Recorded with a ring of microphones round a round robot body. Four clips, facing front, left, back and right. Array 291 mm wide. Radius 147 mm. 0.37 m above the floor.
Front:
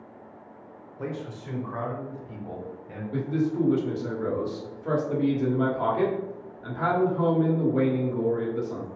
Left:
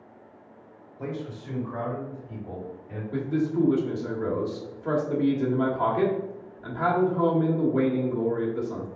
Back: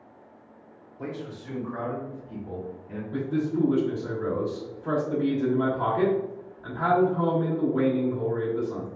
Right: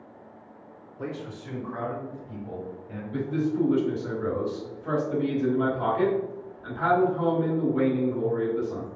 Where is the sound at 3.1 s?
60° left, 1.2 m.